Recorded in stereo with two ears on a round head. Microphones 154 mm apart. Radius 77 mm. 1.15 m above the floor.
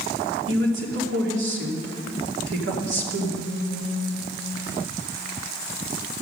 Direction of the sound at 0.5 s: 85° right.